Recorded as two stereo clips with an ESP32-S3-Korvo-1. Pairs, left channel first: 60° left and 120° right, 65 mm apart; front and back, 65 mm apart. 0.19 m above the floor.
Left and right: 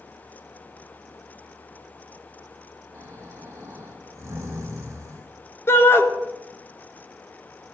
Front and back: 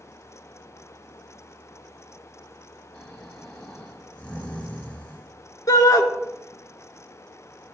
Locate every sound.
2.9 s snoring: 70° right, 5.5 m
5.7 s a shout: 15° left, 2.5 m